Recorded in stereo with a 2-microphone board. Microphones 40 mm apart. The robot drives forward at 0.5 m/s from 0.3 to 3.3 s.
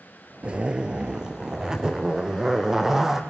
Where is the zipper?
25° right (ahead or behind), 0.9 m; by 3.2 s 10° right (ahead or behind), 2 m.